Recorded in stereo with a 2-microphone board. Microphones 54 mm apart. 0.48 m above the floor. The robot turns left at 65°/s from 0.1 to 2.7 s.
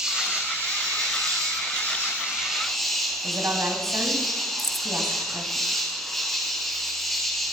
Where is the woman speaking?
55° right (ahead or behind), 2.5 m.